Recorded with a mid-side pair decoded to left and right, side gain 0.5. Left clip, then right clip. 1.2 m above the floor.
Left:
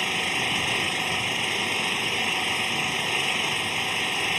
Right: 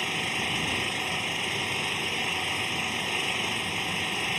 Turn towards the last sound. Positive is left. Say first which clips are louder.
# left 4 dB
turn(degrees=25)